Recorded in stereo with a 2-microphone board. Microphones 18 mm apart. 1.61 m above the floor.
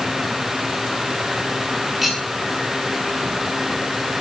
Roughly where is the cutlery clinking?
Centre.